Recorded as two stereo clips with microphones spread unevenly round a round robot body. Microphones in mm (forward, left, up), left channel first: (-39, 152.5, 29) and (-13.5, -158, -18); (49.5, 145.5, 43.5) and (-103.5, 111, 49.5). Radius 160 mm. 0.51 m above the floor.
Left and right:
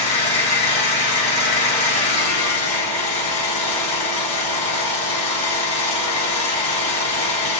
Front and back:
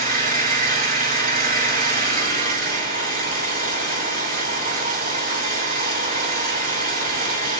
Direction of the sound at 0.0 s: 165° left.